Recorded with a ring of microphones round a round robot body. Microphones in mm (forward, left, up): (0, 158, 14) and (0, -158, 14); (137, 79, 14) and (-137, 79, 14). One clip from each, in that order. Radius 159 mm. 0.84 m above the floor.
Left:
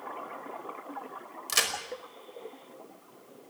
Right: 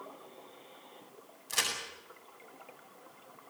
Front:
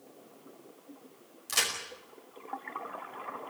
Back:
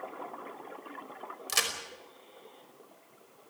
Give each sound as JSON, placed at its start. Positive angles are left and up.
{"t": 1.5, "sound": "a crack", "azimuth_deg": 120, "distance_m": 5.0}